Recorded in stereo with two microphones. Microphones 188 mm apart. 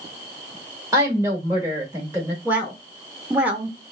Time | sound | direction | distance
0.9 | a woman speaking | 15° right (ahead or behind) | 0.9 m
2.5 | a woman speaking | 10° right (ahead or behind) | 0.8 m